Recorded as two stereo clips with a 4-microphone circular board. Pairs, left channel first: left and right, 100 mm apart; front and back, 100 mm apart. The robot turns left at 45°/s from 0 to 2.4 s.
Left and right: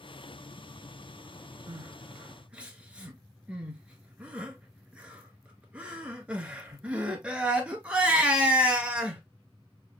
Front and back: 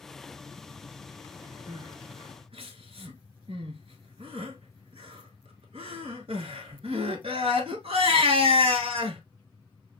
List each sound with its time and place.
1.7 s crying: 135° right, 0.9 m; by 9.2 s 170° right, 0.9 m